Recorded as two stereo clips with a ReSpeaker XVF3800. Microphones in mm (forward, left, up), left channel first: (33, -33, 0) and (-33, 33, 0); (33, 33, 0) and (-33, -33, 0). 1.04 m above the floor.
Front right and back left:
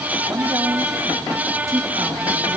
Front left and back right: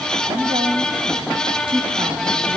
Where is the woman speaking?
160° right, 2.5 m.